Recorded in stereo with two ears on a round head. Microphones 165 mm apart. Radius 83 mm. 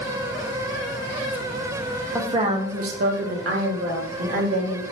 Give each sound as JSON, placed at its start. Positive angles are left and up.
{"t": 2.1, "sound": "a woman speaking", "side_deg": -15, "distance_m": 0.7}